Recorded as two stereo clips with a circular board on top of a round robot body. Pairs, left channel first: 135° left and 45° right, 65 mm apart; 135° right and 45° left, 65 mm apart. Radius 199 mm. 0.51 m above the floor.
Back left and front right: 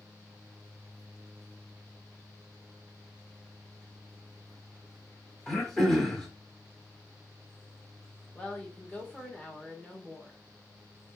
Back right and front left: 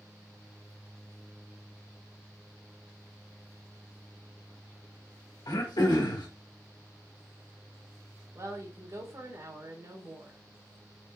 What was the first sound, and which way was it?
Throat clearing, 145° right.